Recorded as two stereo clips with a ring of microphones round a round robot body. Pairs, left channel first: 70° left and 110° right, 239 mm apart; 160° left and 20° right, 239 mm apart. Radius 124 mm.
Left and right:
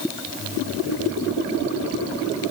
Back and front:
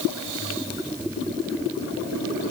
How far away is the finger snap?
No finger snap in this recording.